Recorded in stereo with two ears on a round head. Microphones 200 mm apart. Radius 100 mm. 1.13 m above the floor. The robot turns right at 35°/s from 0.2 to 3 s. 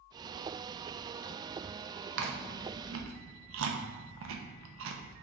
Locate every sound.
2.2 s chewing: 60° right (ahead or behind), 0.6 m; by 5.1 s 65° right (ahead or behind), 0.6 m